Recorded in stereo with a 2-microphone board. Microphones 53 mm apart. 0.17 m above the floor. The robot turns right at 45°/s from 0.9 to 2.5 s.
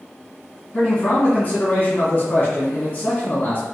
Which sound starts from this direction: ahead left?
A man speaking, at 0.7 s.